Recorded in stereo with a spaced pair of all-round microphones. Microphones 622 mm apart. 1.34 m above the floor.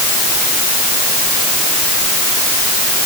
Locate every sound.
Only background noise.